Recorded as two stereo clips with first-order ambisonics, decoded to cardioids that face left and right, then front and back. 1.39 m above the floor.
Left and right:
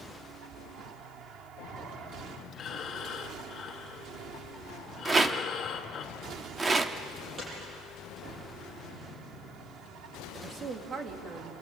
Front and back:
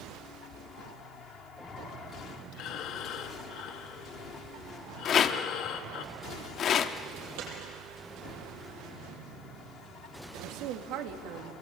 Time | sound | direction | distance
2.5 | breathing | 35° left | 1.4 m
5.0 | a rattle | 20° right | 1.0 m
7.4 | a dropped coin | 165° right | 9 m
10.3 | a woman speaking | 155° right | 2.5 m